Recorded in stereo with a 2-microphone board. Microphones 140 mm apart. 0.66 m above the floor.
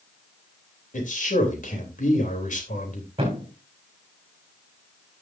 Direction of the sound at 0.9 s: 65° left (ahead or behind).